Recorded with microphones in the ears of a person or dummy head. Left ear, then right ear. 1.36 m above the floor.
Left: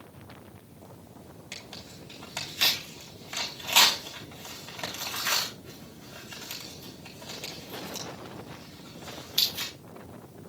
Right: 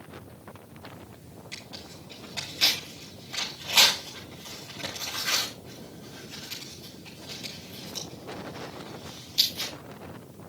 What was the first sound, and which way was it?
Tearing paper, 50° left (ahead or behind).